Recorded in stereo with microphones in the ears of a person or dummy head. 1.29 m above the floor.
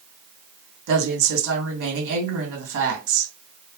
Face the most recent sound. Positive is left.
turn(degrees=-65)  # may be behind; listen again after turning